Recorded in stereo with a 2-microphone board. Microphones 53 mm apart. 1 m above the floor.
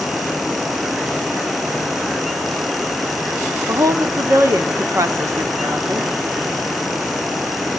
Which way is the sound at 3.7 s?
75° right (ahead or behind).